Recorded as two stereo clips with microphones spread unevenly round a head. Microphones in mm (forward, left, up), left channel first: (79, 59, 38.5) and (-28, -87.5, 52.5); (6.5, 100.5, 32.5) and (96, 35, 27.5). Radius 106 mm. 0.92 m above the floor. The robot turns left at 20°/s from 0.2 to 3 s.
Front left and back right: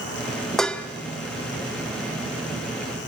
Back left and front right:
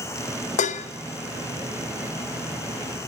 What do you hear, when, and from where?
0.6 s dishes clattering: 140° left, 0.6 m; by 0.9 s 135° left, 0.6 m